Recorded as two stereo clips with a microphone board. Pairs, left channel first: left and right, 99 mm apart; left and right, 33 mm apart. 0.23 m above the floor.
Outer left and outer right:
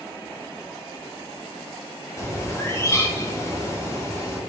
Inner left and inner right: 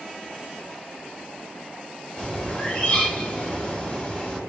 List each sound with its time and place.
2.2 s a bird: 25° left (ahead or behind), 0.7 m